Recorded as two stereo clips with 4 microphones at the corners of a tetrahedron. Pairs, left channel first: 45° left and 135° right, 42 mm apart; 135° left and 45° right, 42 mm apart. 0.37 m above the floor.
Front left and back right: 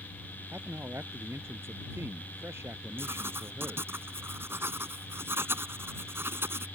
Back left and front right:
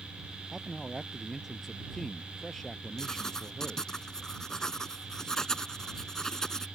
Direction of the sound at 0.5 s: 130° right.